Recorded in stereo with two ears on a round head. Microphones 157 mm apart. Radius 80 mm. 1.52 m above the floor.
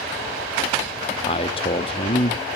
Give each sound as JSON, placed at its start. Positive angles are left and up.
{"t": 1.3, "sound": "a man speaking", "side_deg": 30, "distance_m": 0.5}